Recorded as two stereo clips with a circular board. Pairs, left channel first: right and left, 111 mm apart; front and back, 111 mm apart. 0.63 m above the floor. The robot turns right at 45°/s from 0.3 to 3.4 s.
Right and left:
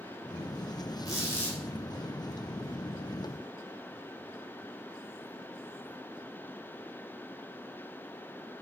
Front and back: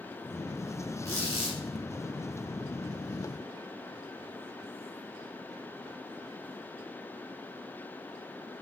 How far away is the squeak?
About 1.4 m.